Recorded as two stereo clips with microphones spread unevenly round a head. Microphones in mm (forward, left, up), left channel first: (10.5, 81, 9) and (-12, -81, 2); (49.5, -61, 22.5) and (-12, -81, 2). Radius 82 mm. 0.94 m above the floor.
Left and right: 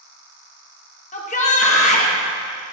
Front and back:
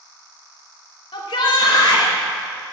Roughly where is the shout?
Ahead left.